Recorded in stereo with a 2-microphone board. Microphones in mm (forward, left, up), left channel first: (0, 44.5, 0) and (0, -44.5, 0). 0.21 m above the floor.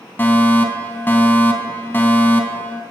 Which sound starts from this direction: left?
A fire alarm, at 0.2 s.